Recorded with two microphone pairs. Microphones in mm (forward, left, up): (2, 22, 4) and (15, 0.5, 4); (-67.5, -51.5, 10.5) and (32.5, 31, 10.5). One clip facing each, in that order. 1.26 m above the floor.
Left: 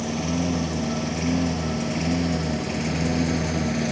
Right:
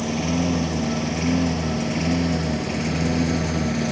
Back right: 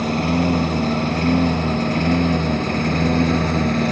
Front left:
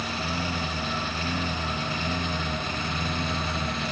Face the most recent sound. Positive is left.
turn(degrees=-145)